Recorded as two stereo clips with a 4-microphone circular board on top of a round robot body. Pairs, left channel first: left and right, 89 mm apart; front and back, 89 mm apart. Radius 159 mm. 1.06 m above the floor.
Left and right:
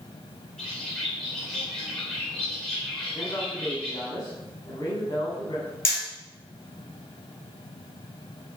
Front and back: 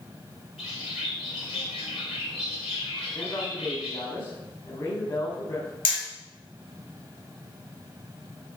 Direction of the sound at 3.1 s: 40° left.